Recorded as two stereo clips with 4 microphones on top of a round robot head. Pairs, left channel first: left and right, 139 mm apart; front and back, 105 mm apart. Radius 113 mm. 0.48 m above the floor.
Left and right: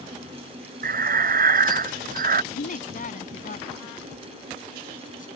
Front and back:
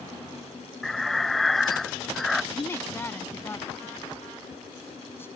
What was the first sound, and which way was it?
Breathing, 90° right.